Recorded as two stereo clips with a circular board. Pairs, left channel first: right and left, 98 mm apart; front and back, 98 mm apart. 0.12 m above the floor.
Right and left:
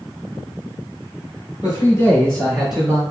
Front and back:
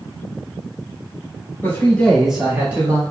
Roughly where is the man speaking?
Ahead right.